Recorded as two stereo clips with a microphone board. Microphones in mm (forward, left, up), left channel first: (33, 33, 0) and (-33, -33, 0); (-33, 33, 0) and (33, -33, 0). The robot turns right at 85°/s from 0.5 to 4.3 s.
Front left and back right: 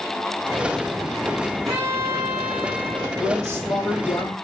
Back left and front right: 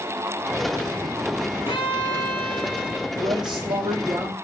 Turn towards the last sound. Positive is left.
turn(degrees=0)